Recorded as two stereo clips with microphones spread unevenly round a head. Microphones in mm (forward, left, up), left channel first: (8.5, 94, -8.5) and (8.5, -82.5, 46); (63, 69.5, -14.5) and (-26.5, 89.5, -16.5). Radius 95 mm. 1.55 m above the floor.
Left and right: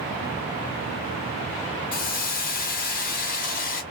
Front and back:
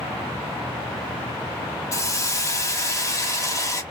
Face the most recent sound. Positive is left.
turn(degrees=45)